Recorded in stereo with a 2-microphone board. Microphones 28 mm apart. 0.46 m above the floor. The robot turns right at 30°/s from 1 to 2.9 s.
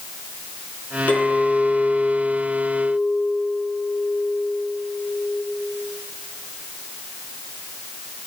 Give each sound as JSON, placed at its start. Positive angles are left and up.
{"t": 1.1, "sound": "a clink", "azimuth_deg": 60, "distance_m": 4.0}